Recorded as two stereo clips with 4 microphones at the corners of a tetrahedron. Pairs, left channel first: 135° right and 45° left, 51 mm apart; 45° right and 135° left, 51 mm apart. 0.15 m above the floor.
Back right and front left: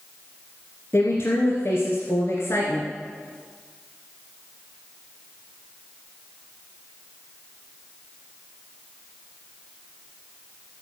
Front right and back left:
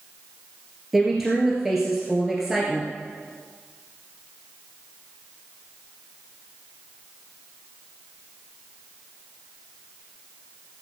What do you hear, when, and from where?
0.9 s a woman speaking: 140° right, 2 m